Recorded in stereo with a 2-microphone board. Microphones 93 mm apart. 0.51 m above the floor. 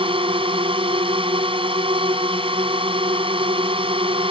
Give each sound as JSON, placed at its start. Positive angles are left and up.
{"t": 0.0, "sound": "a drone", "side_deg": -70}